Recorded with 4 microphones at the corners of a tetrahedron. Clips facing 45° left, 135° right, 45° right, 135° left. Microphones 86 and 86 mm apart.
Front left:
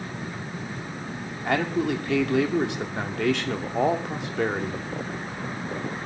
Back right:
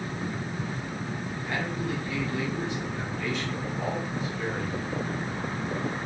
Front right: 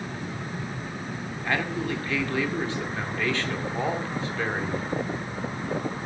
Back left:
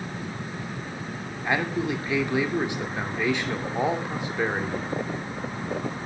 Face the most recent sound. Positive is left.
turn(degrees=60)